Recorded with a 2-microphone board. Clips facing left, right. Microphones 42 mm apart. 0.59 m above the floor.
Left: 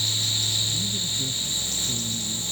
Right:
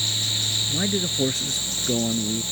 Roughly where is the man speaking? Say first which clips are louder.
Right 4 dB; right.